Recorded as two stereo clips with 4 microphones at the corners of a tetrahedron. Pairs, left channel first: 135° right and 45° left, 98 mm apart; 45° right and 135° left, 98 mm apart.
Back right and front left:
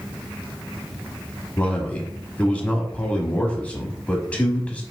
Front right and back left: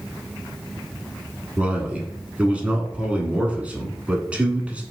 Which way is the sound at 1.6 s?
175° left.